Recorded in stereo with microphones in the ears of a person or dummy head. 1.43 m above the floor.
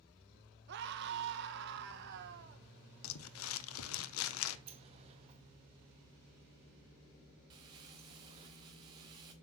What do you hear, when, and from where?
0.7 s a scream: 65° right (ahead or behind), 1.0 m
3.0 s crumpling: 80° left, 0.9 m
4.7 s a sliding door: 35° right (ahead or behind), 1.1 m
7.5 s crumpling: 20° right (ahead or behind), 0.9 m